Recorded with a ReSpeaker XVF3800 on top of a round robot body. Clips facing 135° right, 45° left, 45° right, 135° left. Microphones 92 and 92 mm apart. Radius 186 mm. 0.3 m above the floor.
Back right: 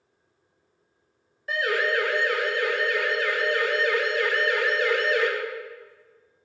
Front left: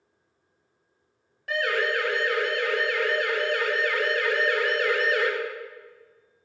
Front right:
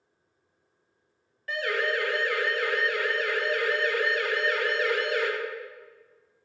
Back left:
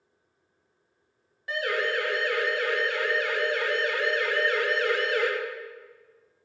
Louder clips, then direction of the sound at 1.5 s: Back right 1 dB, even; 65° left.